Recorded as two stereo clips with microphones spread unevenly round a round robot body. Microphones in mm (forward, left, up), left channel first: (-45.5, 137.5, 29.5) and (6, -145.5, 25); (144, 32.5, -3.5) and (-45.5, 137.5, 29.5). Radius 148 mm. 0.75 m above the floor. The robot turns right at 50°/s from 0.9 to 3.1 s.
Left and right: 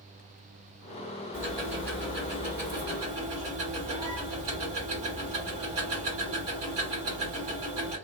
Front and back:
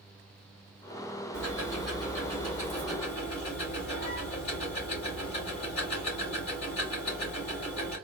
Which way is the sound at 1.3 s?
165° right.